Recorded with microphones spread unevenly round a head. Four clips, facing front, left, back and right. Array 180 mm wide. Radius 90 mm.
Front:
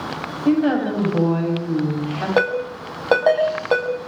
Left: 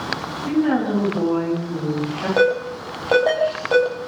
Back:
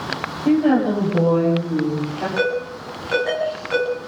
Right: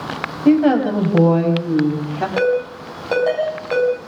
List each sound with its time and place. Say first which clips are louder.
0.5 s a woman speaking: right 6 dB, back 2 dB; 85° right, 9.5 m; by 2.3 s 90° right, 10 m
2.4 s a ringtone: even, front 3 dB; 15° left, 7.5 m